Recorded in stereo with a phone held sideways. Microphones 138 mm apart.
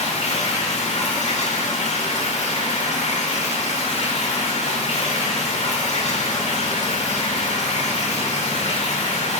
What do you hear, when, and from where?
0.0 s running water: 50° left (ahead or behind), 1.9 m